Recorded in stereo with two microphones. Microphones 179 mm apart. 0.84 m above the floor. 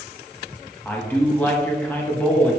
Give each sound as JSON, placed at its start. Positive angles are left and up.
{"t": 0.8, "sound": "a man speaking", "side_deg": 10, "distance_m": 1.5}